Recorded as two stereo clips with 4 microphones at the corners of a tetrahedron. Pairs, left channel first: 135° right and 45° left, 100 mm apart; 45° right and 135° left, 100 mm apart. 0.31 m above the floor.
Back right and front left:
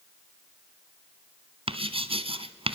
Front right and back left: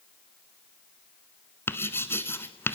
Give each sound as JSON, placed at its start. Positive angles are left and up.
{"t": 1.7, "sound": "writing", "azimuth_deg": 20, "distance_m": 1.2}